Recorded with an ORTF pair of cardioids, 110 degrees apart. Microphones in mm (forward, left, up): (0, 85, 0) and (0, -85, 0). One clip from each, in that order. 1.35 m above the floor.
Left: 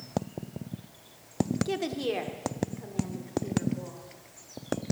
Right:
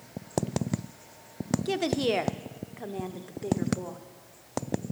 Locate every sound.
1.6 s a woman speaking: 15° right, 0.6 m; by 4.0 s 50° right, 1.7 m